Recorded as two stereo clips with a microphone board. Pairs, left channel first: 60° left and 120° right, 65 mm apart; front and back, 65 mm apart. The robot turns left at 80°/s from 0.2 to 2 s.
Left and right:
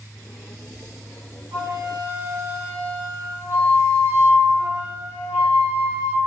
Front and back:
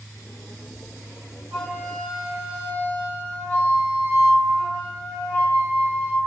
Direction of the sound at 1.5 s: 110° right.